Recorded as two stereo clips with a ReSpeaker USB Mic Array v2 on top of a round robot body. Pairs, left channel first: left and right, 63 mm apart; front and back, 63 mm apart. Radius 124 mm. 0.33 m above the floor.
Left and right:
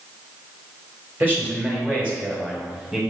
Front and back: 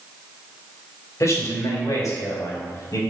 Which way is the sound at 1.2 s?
35° right.